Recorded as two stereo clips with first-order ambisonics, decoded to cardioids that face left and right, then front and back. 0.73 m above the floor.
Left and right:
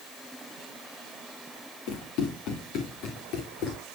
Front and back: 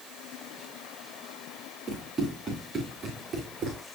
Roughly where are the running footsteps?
Left.